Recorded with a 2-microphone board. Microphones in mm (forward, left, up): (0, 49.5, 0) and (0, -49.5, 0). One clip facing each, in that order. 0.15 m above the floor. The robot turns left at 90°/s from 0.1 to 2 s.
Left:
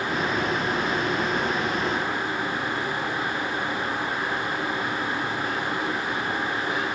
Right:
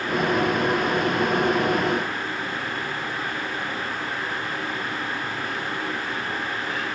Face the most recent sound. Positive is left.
No sound to turn to.